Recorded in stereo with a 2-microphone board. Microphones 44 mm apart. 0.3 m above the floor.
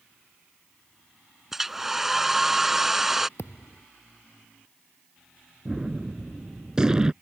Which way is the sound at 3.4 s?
85° left.